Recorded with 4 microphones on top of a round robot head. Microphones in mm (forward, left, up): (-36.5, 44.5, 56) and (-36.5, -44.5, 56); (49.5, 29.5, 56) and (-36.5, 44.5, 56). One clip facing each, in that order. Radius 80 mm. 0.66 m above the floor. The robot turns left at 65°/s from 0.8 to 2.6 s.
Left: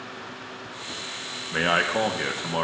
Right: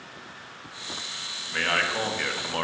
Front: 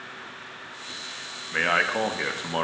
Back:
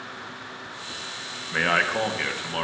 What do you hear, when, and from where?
1.5 s a man speaking: 95° left, 0.8 m; by 2.6 s 25° left, 0.8 m